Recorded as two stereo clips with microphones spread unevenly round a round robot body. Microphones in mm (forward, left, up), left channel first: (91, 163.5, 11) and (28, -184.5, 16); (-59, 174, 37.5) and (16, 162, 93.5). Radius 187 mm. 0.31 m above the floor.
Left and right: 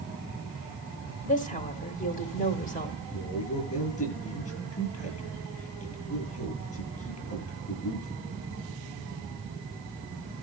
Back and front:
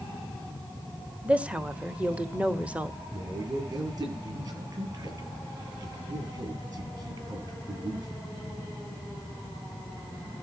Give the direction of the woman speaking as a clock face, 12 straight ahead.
8 o'clock.